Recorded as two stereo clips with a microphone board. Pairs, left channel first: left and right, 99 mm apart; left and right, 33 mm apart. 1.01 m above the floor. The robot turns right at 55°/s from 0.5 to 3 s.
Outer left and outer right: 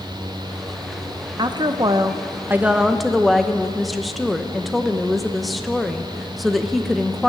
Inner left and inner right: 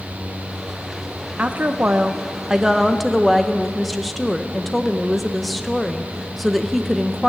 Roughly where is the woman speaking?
Right.